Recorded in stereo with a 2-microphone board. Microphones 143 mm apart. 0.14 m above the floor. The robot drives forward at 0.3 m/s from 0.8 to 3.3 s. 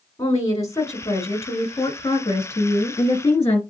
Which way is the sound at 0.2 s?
25° left (ahead or behind).